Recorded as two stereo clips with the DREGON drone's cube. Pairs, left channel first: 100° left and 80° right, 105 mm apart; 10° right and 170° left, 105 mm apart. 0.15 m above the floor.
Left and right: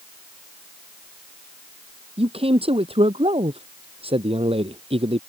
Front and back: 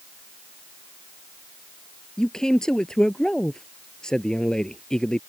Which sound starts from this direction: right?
A man speaking, at 2.2 s.